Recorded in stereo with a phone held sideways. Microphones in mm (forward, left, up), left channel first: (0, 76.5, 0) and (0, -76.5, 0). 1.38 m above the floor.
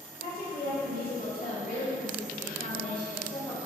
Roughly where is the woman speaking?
Left.